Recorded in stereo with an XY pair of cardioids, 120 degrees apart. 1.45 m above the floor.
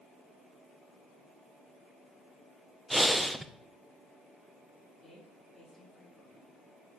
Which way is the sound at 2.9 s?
5° right.